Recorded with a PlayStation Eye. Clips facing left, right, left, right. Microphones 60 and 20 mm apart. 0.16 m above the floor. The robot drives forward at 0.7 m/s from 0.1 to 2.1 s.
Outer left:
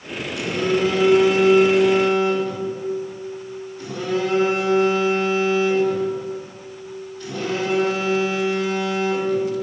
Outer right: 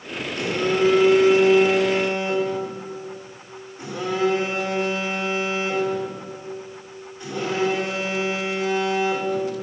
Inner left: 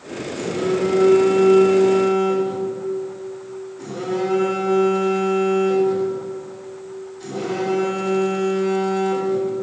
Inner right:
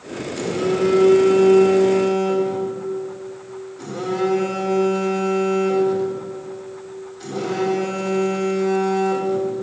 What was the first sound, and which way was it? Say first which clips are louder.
A phone buzzing: even, inner right 1 dB; 45° right (ahead or behind).